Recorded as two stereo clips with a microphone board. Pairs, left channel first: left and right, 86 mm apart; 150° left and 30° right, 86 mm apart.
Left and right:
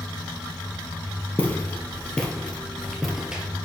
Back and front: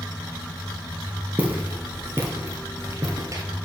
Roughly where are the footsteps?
Ahead left.